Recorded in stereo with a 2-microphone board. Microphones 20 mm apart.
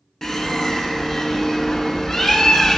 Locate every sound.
0.2 s a bird: 25° left (ahead or behind), 0.9 m